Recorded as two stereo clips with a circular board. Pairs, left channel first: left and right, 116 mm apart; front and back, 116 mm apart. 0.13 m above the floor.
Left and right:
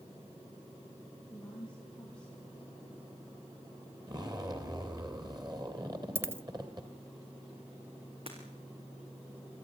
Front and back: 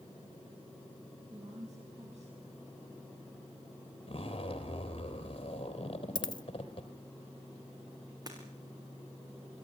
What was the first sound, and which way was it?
A woman speaking, 170° left.